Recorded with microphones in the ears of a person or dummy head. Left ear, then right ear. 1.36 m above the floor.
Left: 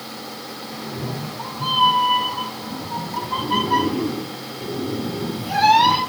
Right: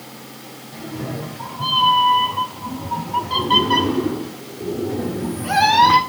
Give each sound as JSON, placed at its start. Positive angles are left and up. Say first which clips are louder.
{"t": 0.7, "sound": "a cat meowing", "louder": "right 3 dB", "side_deg": -15, "distance_m": 3.0}